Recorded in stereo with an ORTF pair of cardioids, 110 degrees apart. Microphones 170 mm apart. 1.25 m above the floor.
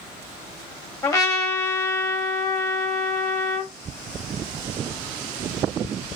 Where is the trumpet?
20° left, 1.7 m.